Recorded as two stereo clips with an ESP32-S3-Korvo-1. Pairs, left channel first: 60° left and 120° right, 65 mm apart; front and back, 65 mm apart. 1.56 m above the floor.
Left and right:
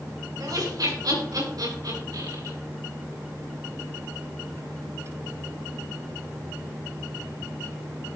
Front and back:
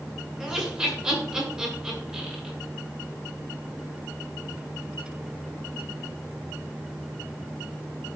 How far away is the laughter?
About 6.5 m.